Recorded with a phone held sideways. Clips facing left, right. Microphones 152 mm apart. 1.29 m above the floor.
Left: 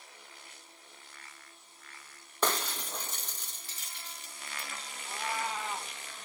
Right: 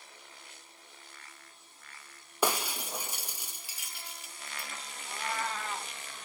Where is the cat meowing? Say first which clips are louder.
Even; 10° left (ahead or behind), 0.7 m.